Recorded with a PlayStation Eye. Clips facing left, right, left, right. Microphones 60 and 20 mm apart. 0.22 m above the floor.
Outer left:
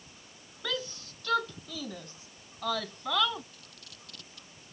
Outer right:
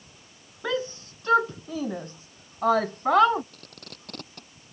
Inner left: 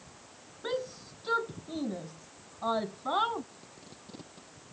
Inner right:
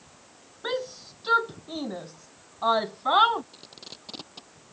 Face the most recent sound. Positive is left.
turn(degrees=-55)  # may be behind; listen again after turning